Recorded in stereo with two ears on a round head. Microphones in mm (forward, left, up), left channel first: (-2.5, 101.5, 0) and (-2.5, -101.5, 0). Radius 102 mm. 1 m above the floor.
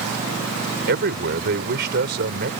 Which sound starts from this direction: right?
A man speaking, at 0.9 s.